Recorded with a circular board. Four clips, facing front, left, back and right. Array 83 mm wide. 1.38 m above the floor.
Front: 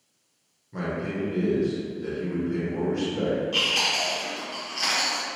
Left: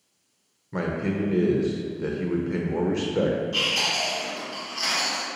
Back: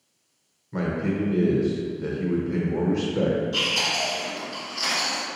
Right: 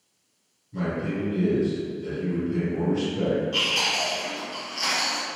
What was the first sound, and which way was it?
A man speaking, 105° left.